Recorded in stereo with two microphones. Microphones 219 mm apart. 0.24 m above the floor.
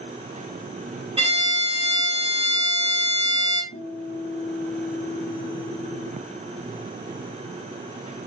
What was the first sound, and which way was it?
A violin, 30° right (ahead or behind).